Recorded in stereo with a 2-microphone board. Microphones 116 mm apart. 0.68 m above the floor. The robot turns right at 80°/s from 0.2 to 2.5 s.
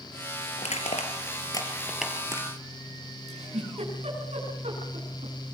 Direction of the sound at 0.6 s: 70° left (ahead or behind).